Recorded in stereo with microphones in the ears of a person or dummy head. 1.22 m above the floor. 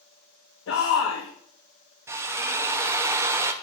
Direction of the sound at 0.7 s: 65° left (ahead or behind).